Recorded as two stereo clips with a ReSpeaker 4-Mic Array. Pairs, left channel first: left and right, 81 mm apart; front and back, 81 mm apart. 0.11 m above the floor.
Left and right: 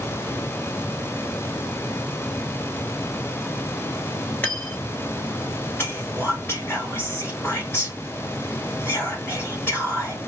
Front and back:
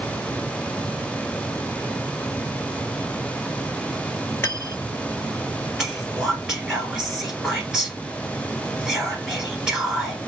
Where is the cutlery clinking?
40° left, 1.0 m.